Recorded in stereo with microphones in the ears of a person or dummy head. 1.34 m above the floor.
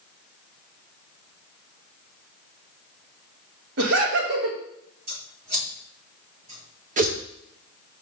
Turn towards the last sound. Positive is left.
turn(degrees=-45)  # may be behind; listen again after turning